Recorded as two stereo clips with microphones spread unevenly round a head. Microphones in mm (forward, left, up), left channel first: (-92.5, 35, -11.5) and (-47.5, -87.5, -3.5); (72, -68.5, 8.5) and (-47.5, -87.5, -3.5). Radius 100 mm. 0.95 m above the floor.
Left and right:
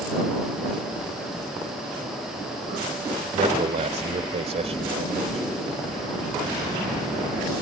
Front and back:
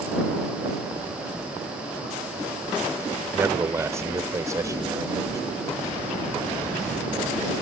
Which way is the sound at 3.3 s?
100° right.